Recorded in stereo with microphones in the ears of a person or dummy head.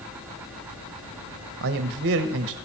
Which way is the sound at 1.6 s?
60° right (ahead or behind).